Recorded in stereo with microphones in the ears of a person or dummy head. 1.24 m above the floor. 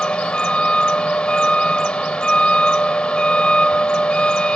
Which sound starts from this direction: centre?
A vehicle, at 0.0 s.